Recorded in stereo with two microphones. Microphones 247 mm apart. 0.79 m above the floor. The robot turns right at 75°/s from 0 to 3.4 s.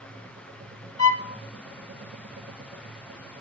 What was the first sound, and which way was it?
A violin, 25° right (ahead or behind).